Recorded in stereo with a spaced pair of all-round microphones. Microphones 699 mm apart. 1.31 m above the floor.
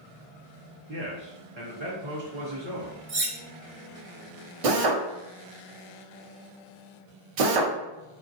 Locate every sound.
0.9 s a man speaking: 45° right (ahead or behind), 0.6 m
3.1 s cutlery clinking: 45° right (ahead or behind), 0.6 m
4.6 s a drill: 60° right (ahead or behind), 0.6 m